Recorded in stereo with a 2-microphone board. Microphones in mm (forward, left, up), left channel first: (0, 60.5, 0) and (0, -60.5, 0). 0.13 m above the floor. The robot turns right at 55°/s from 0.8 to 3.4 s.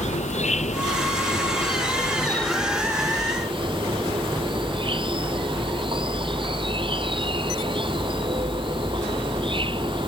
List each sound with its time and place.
0.0 s an insect: 85° left; by 10.1 s 135° right